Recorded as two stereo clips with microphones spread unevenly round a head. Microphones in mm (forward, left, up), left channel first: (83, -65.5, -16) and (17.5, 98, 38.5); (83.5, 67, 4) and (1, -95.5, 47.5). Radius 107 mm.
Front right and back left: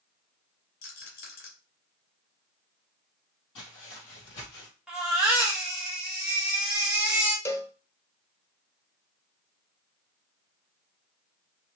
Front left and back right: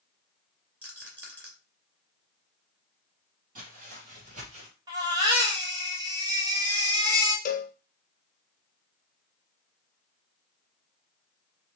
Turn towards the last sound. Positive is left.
turn(degrees=25)